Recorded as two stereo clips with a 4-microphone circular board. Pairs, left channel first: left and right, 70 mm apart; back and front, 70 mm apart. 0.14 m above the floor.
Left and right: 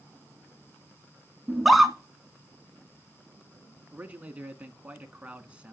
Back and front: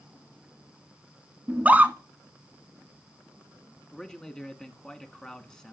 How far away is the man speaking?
About 1.3 m.